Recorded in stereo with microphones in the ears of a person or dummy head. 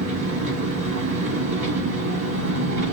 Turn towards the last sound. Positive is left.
turn(degrees=-75)  # may be behind; listen again after turning